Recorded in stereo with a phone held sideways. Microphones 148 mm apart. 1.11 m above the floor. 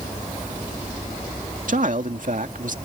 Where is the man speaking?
65° right (ahead or behind).